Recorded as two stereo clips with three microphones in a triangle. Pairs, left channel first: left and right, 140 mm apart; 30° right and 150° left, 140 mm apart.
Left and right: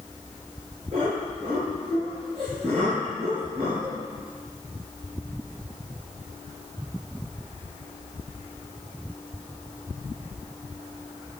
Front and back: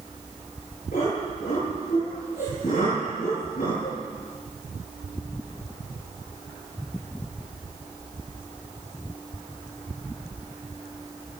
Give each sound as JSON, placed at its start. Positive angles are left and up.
{"t": 0.9, "sound": "laughter", "azimuth_deg": -45, "distance_m": 7.5}